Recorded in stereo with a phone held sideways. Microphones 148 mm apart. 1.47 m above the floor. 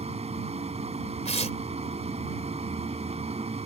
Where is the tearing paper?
45° left (ahead or behind).